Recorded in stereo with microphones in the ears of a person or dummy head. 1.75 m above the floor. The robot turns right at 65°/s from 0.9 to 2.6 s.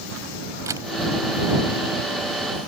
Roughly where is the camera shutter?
Centre.